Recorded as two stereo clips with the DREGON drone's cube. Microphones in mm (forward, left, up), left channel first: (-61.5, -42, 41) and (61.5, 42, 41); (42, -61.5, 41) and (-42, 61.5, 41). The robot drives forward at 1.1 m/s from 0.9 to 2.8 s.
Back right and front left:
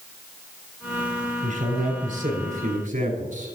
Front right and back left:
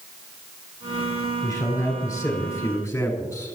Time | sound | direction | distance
1.4 | a man speaking | 10° left | 6 m